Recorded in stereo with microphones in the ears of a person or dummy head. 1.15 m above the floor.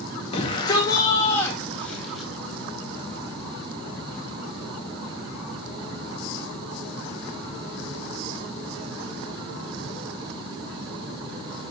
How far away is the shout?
About 1.8 m.